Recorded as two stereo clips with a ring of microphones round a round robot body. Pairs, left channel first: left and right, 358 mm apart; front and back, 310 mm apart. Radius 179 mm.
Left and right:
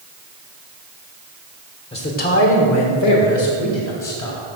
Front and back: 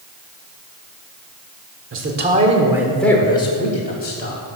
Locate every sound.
1.9 s a man speaking: 160° left, 1.5 m; by 4.4 s 55° left, 2.5 m